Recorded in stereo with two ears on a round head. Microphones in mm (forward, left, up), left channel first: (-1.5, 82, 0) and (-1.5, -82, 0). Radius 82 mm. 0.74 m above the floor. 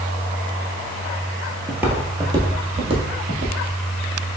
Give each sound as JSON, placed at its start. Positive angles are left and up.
{"t": 1.7, "sound": "footsteps", "side_deg": -5, "distance_m": 0.9}